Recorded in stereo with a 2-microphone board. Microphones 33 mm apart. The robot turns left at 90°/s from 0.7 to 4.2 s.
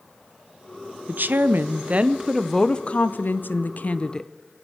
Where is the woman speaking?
60° right, 0.6 m; by 4.3 s 20° left, 0.6 m.